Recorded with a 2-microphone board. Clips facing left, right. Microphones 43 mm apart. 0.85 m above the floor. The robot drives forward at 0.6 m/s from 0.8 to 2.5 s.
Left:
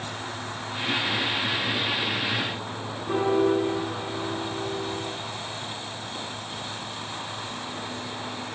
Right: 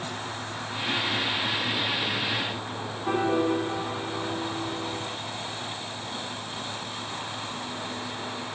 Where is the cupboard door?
No cupboard door in this recording.